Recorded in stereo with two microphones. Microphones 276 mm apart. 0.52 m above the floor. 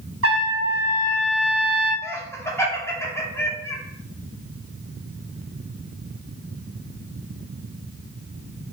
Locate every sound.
0.2 s a trumpet: 55° right (ahead or behind), 0.6 m
2.0 s laughter: 10° left (ahead or behind), 0.7 m